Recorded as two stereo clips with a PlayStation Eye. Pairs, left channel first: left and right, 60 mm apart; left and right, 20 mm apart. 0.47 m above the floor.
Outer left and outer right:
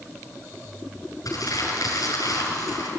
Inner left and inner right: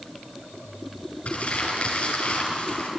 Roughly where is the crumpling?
Left.